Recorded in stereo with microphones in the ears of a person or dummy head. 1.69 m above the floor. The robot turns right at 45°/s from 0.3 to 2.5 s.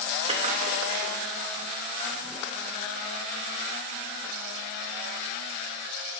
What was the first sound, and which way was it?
A splash, 150° right.